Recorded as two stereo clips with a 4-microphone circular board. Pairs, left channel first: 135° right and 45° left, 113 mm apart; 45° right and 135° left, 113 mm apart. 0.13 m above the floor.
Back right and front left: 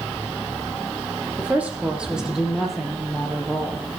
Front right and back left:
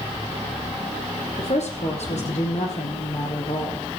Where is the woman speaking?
30° right, 5.5 m; by 3.9 s 55° right, 4.5 m.